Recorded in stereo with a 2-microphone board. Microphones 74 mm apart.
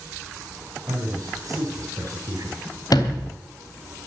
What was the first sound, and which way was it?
A man speaking, 55° right (ahead or behind).